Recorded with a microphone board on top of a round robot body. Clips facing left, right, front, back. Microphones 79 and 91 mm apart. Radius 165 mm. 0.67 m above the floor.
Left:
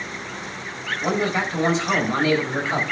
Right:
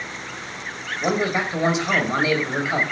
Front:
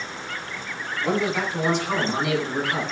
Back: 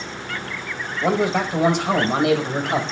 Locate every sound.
1.0 s a man speaking: 160° right, 5 m; by 2.8 s 175° right, 5.5 m